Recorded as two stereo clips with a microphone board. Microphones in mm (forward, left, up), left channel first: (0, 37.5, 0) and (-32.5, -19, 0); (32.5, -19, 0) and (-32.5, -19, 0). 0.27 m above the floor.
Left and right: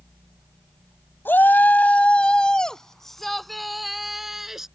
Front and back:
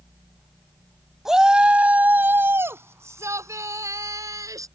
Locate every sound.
1.2 s a shout: 100° left; by 4.7 s 155° left